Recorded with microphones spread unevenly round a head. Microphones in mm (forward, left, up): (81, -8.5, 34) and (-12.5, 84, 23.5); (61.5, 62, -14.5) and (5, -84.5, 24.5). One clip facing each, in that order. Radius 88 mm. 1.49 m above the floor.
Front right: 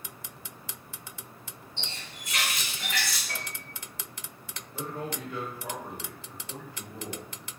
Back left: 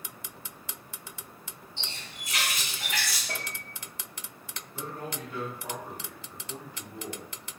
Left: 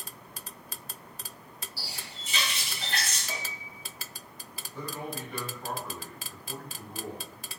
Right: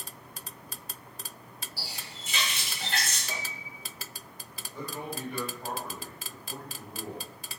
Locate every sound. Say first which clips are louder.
1.8 s a running tap: front right 1 dB, right 1 dB; 75° right, 1.7 m
3.3 s a piano: back left 2 dB, even; 160° left, 0.5 m
4.7 s a man speaking: front right 2 dB, even; 35° right, 1.3 m